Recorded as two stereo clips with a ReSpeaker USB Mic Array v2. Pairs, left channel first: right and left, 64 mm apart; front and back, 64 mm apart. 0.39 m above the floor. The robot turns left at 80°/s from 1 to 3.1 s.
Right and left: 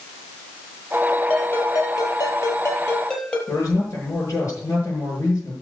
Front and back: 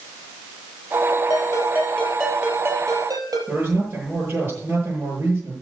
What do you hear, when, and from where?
1.3 s a ringtone: 15° right, 3.5 m; by 3.4 s 160° right, 3.5 m
3.5 s a man speaking: 125° right, 8 m